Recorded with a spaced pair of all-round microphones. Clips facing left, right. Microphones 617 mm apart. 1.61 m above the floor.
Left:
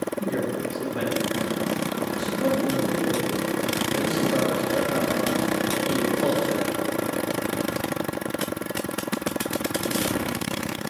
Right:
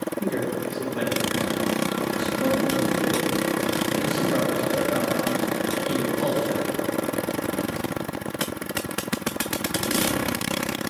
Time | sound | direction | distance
0.2 | a man speaking | 15° left (ahead or behind) | 1.2 m